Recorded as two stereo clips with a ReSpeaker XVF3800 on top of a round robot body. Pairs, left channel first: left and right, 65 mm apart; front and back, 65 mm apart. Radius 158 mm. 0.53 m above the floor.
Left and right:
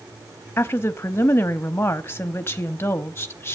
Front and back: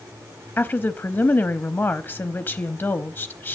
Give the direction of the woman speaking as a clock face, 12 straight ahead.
10 o'clock.